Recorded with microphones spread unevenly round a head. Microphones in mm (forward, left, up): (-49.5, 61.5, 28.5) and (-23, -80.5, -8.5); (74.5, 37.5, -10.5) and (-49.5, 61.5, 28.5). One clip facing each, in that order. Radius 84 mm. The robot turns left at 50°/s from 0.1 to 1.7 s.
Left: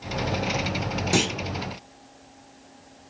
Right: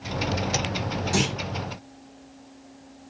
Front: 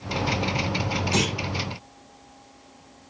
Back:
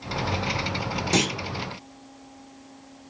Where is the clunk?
120° left, 1.3 m; by 1.3 s 110° left, 1.3 m.